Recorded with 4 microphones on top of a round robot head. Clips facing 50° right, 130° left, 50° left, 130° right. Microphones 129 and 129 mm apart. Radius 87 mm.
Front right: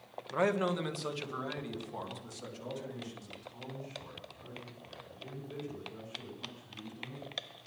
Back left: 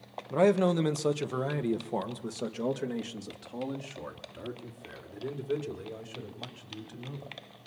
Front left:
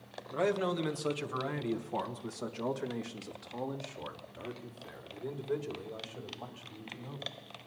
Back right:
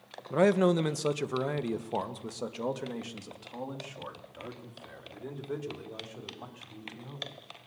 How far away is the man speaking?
About 1.4 m.